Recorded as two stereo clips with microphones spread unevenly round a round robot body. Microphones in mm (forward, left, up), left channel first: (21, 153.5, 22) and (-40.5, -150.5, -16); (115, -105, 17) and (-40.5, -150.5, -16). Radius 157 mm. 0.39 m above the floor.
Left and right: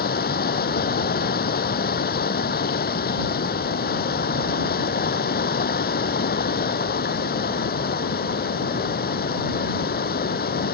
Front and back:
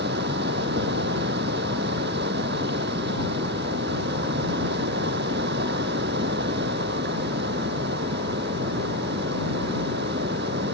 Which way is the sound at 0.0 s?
140° left.